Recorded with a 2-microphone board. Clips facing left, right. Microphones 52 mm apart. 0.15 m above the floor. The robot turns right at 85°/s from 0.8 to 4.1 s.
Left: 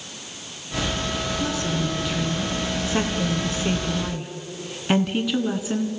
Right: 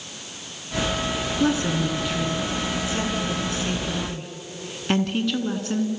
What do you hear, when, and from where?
1.4 s a woman speaking: 60° right, 1.7 m; by 5.9 s 170° left, 1.7 m